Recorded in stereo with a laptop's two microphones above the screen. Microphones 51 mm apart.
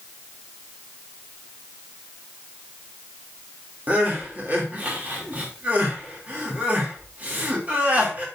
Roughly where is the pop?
I don't hear a pop.